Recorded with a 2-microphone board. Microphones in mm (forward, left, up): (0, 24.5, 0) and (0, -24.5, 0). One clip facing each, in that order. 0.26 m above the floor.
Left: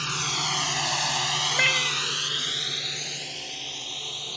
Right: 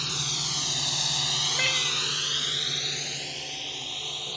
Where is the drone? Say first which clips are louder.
Left 5 dB; 40° left (ahead or behind); by 4.4 s 5° right (ahead or behind).